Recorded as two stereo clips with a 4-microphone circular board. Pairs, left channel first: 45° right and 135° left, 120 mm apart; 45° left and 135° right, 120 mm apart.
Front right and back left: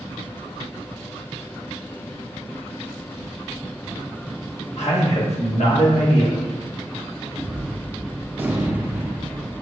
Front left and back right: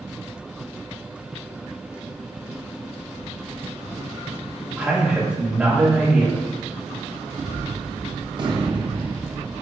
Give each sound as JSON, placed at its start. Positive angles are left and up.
{"t": 4.8, "sound": "a man speaking", "azimuth_deg": -55, "distance_m": 1.5}
{"t": 7.3, "sound": "a gunshot", "azimuth_deg": -160, "distance_m": 0.6}